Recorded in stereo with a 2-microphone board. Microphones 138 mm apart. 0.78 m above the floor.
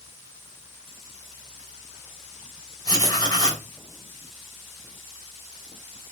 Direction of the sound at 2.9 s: 30° left (ahead or behind).